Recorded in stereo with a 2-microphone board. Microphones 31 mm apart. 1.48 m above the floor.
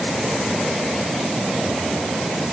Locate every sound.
Only background noise.